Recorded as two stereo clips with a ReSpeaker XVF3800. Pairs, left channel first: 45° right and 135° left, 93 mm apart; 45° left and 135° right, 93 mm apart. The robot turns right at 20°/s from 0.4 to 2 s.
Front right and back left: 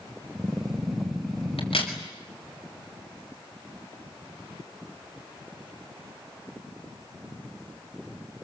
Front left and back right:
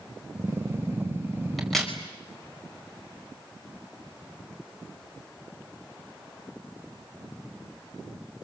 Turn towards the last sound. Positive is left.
turn(degrees=-40)